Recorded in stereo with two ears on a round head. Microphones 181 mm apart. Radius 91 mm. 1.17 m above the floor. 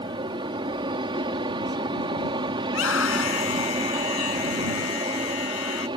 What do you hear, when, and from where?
0.0 s an aircraft: 25° right (ahead or behind)
2.6 s a scream: 70° left (ahead or behind)